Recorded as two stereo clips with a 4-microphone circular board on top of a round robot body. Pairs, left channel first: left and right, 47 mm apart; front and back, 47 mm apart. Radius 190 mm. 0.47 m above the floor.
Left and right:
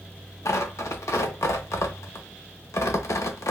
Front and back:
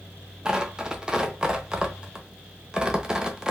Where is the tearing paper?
105° left, 0.6 m.